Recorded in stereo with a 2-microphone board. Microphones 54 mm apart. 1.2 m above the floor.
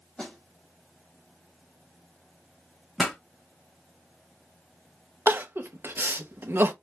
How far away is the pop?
About 1.4 m.